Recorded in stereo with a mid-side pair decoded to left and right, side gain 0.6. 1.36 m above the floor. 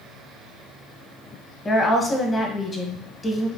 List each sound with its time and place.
1.6 s a woman speaking: 20° left, 0.8 m